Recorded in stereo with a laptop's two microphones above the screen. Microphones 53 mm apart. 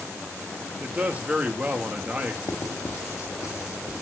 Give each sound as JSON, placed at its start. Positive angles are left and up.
{"t": 0.8, "sound": "a man speaking", "side_deg": -30, "distance_m": 2.0}
{"t": 2.5, "sound": "writing", "side_deg": 75, "distance_m": 1.8}